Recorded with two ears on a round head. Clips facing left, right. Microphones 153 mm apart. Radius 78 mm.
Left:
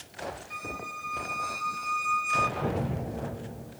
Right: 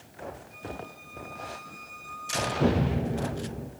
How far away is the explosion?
About 4.5 m.